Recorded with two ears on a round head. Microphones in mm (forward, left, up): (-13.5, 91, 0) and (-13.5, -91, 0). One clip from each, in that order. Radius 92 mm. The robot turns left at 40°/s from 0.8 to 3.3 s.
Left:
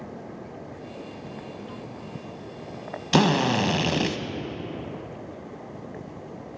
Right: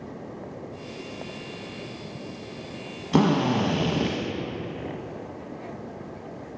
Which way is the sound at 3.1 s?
70° left (ahead or behind).